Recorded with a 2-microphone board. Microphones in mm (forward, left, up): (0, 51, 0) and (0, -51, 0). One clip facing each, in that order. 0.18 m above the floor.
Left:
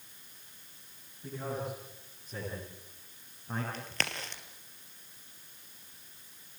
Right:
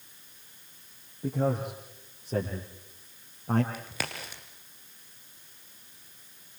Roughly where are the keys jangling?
No keys jangling in this recording.